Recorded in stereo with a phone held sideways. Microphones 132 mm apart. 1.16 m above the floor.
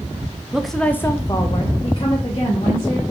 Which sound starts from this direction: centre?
A woman speaking, at 0.5 s.